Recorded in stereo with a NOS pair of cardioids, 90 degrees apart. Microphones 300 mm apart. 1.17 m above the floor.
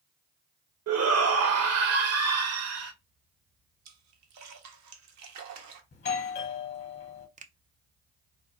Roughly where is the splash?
Ahead right.